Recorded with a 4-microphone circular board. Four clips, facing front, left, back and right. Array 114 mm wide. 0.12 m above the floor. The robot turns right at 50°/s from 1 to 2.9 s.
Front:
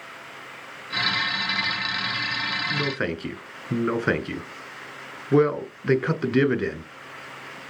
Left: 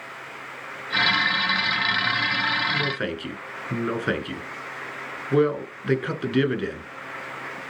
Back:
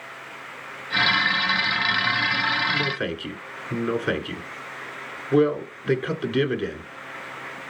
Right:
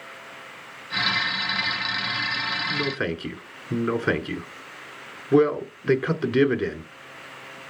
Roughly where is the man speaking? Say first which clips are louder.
Even, back 1 dB; ahead right.